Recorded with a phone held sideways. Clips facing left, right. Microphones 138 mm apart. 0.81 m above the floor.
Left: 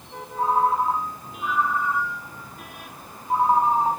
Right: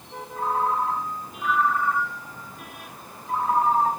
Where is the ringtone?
75° right (ahead or behind), 5 m.